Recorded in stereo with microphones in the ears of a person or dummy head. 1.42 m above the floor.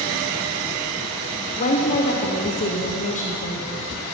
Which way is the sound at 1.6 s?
40° left (ahead or behind).